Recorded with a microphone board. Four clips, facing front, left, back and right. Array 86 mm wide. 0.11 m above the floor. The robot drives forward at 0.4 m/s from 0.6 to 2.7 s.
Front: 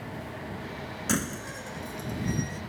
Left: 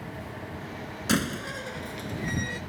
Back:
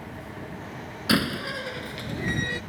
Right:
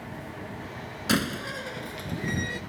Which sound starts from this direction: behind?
A door slam, at 1.1 s.